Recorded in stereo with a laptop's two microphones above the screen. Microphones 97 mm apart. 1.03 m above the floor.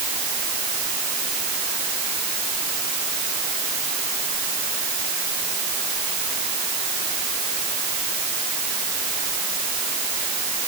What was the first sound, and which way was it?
Only background noise.